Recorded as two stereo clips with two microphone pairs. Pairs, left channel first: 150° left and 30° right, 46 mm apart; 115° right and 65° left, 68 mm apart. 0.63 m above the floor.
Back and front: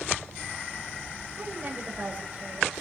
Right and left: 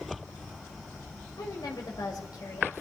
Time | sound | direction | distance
1.4 | a woman speaking | 95° right | 2.5 m